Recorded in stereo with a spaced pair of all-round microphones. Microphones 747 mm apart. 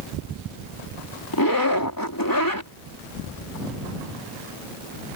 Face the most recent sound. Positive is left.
turn(degrees=30)  # may be behind; listen again after turning